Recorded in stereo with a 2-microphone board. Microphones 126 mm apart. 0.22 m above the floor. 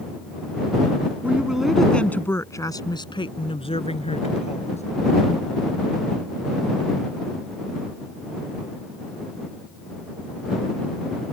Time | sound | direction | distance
1.2 | a woman speaking | 15° right (ahead or behind) | ?